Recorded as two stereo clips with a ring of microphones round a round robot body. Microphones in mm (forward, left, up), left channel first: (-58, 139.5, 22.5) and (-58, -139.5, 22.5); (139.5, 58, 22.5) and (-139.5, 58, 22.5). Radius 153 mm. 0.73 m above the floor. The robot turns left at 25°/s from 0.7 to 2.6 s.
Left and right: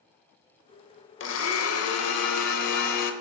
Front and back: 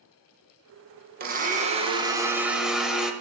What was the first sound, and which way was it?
A blender, 130° left.